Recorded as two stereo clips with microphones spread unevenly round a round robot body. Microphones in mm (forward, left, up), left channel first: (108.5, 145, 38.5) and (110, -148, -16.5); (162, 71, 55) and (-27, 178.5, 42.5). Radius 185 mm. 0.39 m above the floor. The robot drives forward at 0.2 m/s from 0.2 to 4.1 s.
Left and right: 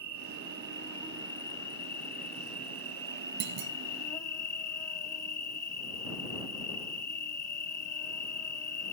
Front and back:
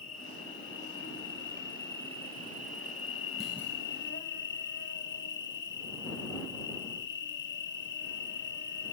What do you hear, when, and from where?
0.0 s an insect: 5° left, 1.6 m; by 8.9 s 10° left, 0.8 m
3.4 s a clunk: 120° right, 0.5 m; by 3.7 s 125° right, 0.6 m